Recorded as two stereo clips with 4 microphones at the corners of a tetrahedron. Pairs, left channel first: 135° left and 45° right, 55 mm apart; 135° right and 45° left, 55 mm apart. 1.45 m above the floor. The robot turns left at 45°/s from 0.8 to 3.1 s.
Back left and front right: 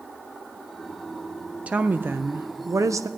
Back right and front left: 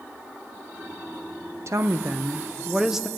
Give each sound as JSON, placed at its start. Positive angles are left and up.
{"t": 1.7, "sound": "a woman speaking", "azimuth_deg": 20, "distance_m": 0.7}